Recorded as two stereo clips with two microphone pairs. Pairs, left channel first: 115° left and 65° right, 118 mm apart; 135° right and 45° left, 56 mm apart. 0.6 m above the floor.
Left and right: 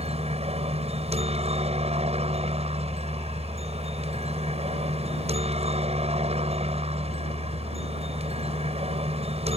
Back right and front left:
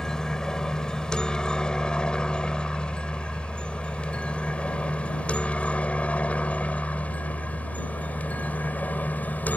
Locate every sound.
0.0 s a helicopter: 55° right; by 9.6 s 80° right